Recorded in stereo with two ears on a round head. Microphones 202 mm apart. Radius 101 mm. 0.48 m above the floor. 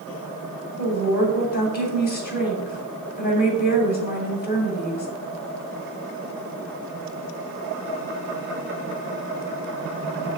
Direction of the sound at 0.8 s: 45° left (ahead or behind).